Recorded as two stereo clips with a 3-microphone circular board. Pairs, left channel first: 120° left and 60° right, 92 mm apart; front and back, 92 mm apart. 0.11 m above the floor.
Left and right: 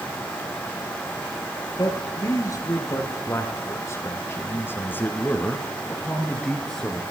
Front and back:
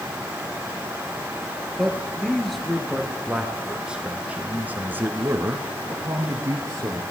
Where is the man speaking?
85° left, 2.5 m; by 7.0 s 150° right, 2 m.